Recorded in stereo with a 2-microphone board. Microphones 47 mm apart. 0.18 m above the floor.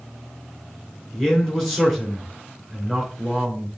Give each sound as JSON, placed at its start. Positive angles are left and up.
{"t": 1.1, "sound": "a man speaking", "side_deg": 15, "distance_m": 2.5}